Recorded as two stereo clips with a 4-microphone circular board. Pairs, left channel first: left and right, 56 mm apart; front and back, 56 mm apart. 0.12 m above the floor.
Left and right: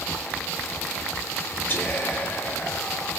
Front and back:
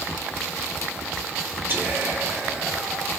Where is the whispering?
130° left, 3 m.